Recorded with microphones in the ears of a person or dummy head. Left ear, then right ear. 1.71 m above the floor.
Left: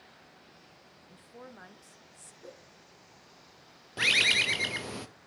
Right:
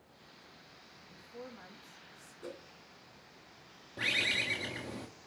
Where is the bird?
60° left (ahead or behind), 0.6 m.